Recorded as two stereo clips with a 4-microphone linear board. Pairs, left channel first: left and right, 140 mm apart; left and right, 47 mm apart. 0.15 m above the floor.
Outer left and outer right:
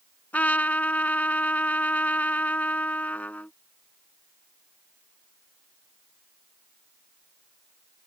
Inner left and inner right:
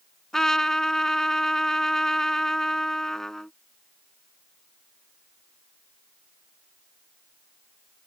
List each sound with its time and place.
0.3 s a trumpet: 10° left (ahead or behind)